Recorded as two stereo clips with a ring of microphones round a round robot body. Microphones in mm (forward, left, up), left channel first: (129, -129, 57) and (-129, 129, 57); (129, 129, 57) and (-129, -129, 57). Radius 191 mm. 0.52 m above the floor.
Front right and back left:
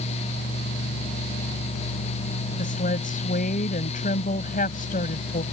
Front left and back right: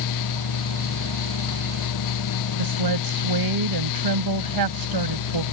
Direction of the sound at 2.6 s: 110° right.